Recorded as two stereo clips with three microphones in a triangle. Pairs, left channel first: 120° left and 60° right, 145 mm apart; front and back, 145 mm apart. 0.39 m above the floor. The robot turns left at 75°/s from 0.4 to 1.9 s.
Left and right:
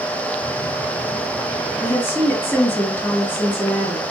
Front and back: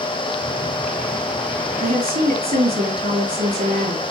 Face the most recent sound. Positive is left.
turn(degrees=-165)